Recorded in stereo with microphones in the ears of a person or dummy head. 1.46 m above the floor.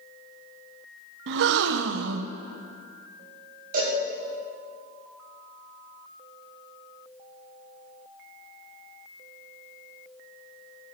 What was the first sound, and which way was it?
A gasp, 70° right (ahead or behind).